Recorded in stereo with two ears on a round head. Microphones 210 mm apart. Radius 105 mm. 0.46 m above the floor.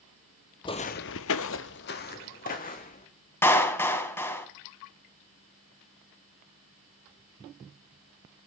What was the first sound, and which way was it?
Footsteps, 20° left (ahead or behind).